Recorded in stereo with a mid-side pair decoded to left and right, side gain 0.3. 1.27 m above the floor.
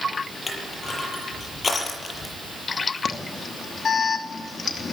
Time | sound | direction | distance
0.5 | crushing | 50° left | 6.5 m
3.0 | an alarm | 65° left | 3 m